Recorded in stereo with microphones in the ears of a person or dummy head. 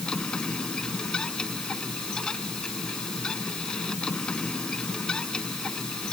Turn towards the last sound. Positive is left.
turn(degrees=0)  # may be behind; listen again after turning